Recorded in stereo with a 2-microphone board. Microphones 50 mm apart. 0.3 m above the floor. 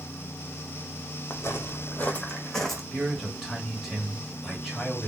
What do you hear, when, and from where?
1.3 s footsteps: 70° left (ahead or behind), 0.6 m; by 2.8 s centre (ahead or behind), 0.8 m
2.9 s a man speaking: 5° right (ahead or behind), 0.9 m